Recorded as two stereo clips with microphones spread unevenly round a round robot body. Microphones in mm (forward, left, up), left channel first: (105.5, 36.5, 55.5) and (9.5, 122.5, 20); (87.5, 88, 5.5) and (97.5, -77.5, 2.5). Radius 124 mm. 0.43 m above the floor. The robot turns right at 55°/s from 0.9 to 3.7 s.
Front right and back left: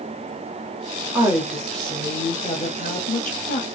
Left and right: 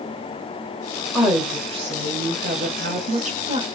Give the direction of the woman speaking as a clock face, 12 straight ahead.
6 o'clock.